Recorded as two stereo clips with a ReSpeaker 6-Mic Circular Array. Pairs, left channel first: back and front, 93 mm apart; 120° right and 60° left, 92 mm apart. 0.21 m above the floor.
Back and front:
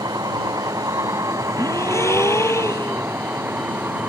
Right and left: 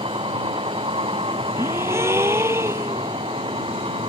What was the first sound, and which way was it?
A vehicle, 45° left.